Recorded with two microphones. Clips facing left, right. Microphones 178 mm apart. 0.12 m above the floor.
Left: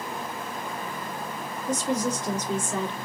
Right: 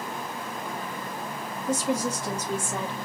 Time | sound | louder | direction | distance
1.7 | a woman speaking | even | 10° right (ahead or behind) | 1.9 m